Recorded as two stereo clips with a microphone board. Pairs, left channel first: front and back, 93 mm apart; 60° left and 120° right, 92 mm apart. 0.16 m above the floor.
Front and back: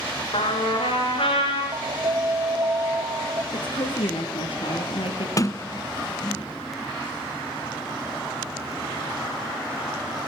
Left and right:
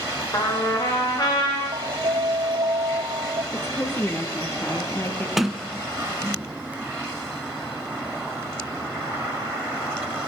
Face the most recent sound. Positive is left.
turn(degrees=-35)